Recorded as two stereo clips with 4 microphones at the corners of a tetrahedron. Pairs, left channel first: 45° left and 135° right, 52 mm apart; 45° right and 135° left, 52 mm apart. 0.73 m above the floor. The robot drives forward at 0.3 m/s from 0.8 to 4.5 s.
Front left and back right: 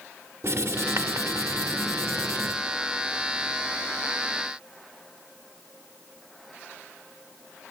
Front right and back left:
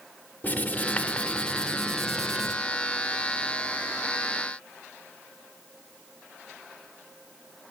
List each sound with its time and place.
0.4 s writing: 105° right, 0.7 m; by 2.5 s 135° right, 0.9 m